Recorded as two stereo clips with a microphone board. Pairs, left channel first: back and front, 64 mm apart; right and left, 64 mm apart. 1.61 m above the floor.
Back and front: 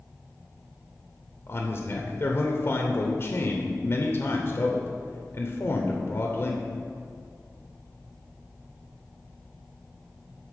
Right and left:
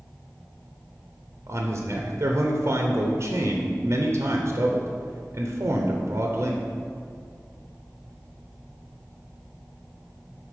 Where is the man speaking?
135° left, 0.7 m.